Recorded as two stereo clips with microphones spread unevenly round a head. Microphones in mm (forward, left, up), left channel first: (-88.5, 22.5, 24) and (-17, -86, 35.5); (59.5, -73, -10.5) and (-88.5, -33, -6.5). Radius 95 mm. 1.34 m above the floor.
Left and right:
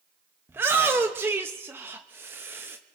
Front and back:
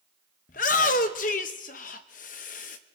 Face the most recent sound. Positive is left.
turn(degrees=20)